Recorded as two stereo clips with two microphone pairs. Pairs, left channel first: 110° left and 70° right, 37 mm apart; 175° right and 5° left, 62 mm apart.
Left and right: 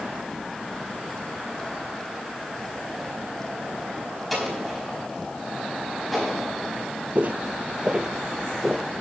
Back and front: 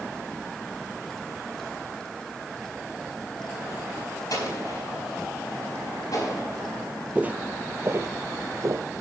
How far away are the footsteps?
About 0.7 m.